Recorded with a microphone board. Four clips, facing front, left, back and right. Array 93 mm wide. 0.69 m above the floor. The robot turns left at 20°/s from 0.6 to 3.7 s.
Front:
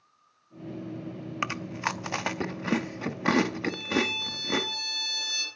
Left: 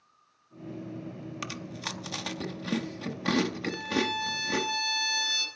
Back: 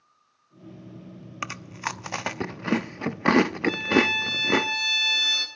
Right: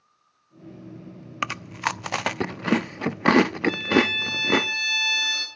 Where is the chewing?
75° right, 0.9 m; by 4.7 s 120° right, 0.9 m.